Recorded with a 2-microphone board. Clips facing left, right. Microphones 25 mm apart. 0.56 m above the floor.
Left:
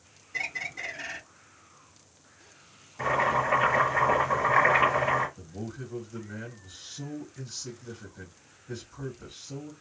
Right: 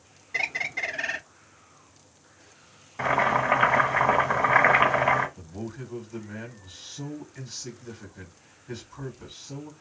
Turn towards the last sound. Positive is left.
turn(degrees=-55)  # may be behind; listen again after turning